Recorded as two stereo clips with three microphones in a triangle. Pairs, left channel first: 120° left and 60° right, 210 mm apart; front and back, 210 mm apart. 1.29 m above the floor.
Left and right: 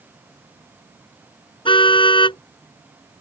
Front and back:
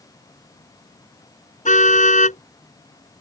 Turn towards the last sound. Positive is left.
turn(degrees=55)